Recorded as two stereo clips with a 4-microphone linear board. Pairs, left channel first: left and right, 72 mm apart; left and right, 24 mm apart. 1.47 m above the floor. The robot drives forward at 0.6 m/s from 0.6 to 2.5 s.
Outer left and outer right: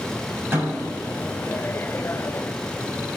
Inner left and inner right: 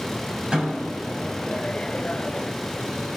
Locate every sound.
0.5 s a snare drum: 35° right (ahead or behind), 5 m